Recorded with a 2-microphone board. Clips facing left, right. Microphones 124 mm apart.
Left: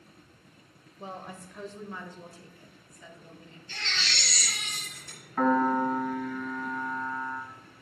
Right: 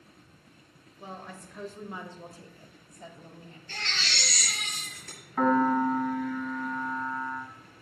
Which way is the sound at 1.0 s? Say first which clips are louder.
Left 2 dB; 25° left (ahead or behind).